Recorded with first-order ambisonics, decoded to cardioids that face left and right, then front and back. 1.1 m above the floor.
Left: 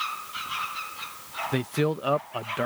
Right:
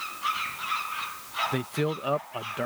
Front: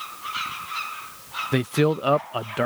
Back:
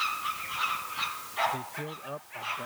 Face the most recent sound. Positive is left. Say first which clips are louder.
# left 2 dB, front 14 dB
turn(degrees=10)